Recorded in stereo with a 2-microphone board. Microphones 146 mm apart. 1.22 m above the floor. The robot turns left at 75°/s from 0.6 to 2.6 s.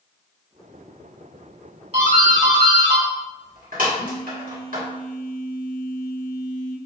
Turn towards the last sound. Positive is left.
turn(degrees=85)